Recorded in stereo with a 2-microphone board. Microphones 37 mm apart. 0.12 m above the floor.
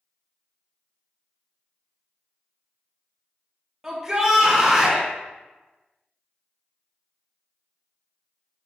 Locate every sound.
3.8 s a shout: 10° right (ahead or behind), 3 m